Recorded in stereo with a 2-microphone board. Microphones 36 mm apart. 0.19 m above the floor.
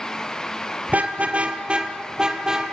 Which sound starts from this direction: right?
A car horn, at 0.9 s.